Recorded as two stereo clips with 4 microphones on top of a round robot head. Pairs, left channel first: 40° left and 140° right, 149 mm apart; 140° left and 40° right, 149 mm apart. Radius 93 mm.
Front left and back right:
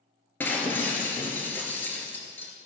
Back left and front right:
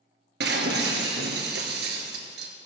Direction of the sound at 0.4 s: 35° right.